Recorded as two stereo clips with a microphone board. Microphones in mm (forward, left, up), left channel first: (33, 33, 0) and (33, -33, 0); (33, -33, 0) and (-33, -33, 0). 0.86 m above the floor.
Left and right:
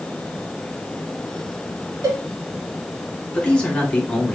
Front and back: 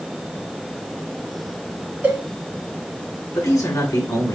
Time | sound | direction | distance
2.0 | a cowbell | 115° right | 1.5 m
3.4 | a man speaking | 15° left | 2.5 m